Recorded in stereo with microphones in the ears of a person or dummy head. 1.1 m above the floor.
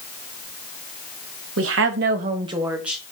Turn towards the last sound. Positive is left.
turn(degrees=0)  # may be behind; listen again after turning